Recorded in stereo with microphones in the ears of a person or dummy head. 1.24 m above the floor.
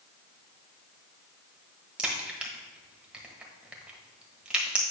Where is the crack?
5° right (ahead or behind), 1.2 m.